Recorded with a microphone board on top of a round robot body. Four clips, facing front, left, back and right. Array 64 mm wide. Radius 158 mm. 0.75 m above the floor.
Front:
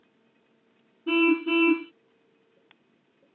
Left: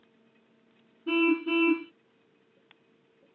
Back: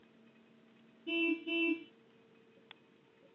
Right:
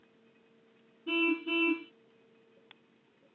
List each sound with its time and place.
1.1 s a car horn: 15° left